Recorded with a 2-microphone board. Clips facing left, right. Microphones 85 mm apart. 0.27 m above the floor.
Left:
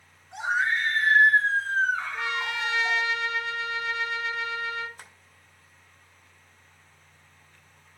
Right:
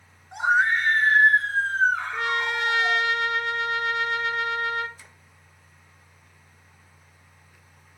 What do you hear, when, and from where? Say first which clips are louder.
0.3 s a scream: right 5 dB; 60° right (ahead or behind), 3.5 m; by 3.0 s 70° right (ahead or behind), 6 m
2.1 s a trumpet: right 4 dB; 60° right (ahead or behind), 1.4 m
5.0 s tapping: left 3 dB; 55° left (ahead or behind), 2 m